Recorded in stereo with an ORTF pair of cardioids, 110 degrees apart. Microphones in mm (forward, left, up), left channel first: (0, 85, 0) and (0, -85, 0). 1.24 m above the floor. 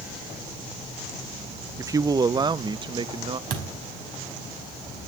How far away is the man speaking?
About 0.5 m.